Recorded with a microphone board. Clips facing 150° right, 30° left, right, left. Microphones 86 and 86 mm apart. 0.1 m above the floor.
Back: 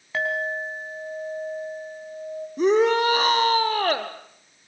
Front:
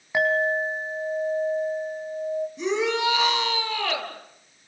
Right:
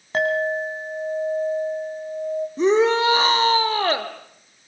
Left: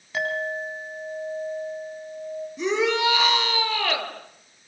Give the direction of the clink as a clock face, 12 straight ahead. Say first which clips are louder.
Front 4 dB, right 6 dB; 1 o'clock.